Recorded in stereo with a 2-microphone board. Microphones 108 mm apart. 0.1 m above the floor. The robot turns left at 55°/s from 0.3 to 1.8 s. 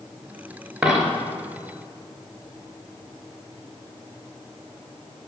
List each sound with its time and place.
0.8 s a dropped coin: 5° right (ahead or behind), 0.7 m; by 1.1 s centre (ahead or behind), 0.7 m